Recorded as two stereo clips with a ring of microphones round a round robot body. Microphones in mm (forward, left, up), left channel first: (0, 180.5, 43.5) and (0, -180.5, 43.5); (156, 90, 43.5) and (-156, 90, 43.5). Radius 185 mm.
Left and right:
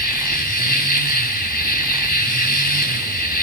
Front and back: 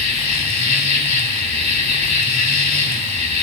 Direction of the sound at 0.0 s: 25° left.